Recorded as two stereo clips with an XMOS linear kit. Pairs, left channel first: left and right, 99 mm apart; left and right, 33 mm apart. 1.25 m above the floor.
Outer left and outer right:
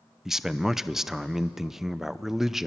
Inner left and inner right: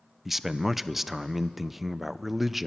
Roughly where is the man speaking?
Centre.